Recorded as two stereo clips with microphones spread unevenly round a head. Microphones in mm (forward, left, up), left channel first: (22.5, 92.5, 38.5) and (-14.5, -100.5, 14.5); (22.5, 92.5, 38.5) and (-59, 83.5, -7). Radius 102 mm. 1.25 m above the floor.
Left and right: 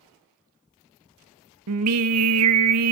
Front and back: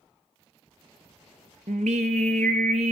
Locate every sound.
1.7 s singing: 115° right, 0.9 m